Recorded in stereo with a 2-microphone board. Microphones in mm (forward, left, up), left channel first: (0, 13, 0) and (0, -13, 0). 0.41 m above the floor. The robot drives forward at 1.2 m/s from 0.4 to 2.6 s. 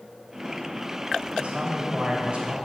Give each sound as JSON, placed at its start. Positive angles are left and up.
{"t": 1.4, "sound": "a man speaking", "side_deg": -50, "distance_m": 2.0}